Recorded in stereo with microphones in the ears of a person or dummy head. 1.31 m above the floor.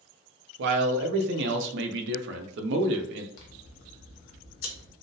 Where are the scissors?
75° left (ahead or behind), 0.7 m.